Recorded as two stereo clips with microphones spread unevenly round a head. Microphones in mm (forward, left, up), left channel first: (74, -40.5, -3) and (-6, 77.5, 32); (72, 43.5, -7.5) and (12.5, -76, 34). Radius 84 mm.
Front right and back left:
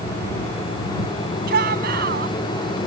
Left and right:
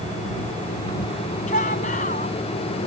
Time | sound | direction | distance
1.5 | a shout | 115° left | ?